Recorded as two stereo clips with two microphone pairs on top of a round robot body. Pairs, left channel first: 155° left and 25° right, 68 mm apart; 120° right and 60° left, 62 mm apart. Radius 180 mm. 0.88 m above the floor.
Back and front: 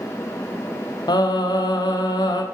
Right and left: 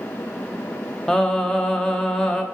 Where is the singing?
165° left, 1.2 m.